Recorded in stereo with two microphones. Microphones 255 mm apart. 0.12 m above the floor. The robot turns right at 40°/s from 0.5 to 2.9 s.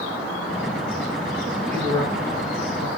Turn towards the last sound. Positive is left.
turn(degrees=-105)